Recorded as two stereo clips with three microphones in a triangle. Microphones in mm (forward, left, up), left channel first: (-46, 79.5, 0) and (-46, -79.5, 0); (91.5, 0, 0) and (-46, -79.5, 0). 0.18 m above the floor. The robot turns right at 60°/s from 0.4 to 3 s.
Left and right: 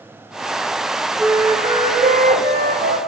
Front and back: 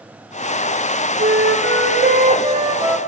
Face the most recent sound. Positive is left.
turn(degrees=-65)